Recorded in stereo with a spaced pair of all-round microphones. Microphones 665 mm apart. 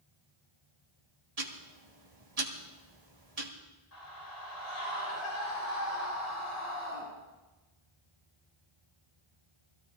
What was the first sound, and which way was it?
Ticking, 60° right (ahead or behind).